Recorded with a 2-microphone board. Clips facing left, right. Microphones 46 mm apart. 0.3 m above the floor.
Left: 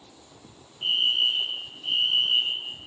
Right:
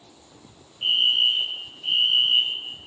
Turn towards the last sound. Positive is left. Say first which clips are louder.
# right 3 dB
turn(degrees=-25)  # may be behind; listen again after turning